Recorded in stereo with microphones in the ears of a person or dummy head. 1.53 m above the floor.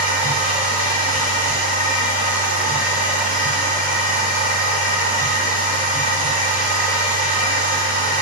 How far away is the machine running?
About 3 m.